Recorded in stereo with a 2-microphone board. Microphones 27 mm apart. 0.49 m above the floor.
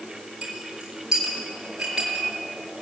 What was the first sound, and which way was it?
A clink, 15° right (ahead or behind).